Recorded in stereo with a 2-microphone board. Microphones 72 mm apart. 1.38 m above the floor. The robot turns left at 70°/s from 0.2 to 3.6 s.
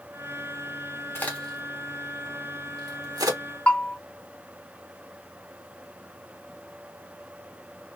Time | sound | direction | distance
1.1 | a crack | 30° left (ahead or behind) | 1.5 m
3.7 | a bell | 15° left (ahead or behind) | 2 m